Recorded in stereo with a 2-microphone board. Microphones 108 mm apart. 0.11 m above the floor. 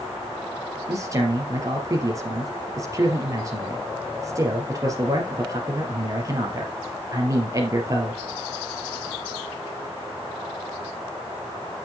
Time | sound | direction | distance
0.9 | a man speaking | 30° right (ahead or behind) | 3 m